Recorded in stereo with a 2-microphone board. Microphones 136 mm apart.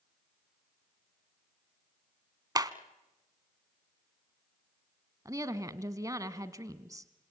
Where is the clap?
30° right (ahead or behind), 1.0 m.